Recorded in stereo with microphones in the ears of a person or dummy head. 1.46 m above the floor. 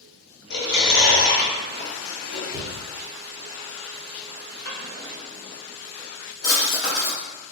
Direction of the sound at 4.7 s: 50° left (ahead or behind).